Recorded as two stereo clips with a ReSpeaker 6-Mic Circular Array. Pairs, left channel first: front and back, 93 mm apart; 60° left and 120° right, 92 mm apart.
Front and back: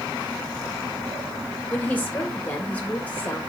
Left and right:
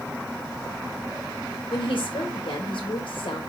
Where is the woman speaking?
70° left, 1.3 m.